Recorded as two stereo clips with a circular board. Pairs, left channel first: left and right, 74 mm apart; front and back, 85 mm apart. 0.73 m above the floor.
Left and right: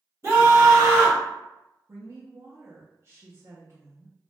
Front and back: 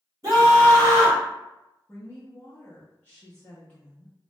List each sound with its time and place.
0.2 s a scream: 135° right, 1.9 m
1.9 s a woman speaking: 65° right, 0.7 m